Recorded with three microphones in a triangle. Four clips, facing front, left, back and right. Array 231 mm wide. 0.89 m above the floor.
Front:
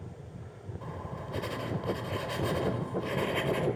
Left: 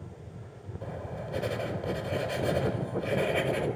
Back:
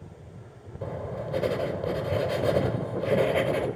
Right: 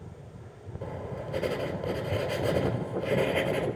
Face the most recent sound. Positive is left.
turn(degrees=-160)